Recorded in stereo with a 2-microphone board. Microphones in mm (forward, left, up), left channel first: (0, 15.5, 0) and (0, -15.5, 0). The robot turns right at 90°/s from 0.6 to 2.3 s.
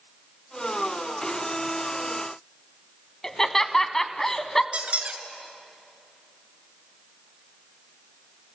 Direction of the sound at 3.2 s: 15° left (ahead or behind).